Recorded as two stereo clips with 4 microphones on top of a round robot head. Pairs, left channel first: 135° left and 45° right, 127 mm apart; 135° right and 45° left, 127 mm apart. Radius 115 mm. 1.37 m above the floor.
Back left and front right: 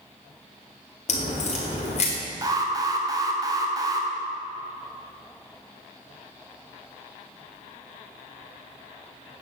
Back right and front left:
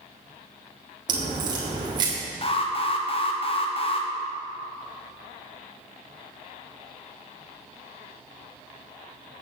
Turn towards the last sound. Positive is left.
turn(degrees=-100)